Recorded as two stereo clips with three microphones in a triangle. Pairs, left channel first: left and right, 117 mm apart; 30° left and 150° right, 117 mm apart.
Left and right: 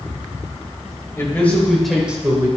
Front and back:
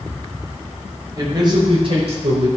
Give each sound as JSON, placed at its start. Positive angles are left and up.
{"t": 1.2, "sound": "a man speaking", "azimuth_deg": 155, "distance_m": 2.5}